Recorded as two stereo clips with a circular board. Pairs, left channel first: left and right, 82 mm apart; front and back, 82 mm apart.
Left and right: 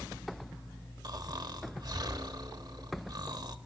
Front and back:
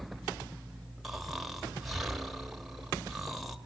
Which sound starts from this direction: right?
Snoring, at 1.0 s.